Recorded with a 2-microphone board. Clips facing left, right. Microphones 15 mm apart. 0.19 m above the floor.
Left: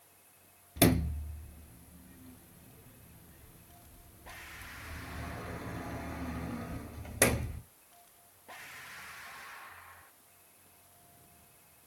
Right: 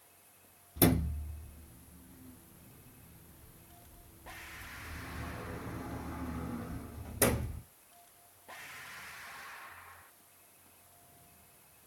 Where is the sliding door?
45° left (ahead or behind), 0.9 m.